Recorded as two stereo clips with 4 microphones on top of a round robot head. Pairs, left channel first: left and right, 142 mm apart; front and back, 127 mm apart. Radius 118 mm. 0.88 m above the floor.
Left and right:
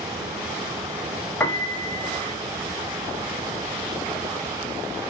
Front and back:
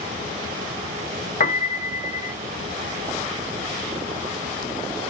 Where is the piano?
10° left, 0.9 m.